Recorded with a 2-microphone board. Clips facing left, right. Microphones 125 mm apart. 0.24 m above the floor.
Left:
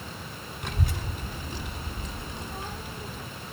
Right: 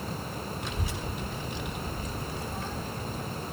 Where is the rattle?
No rattle in this recording.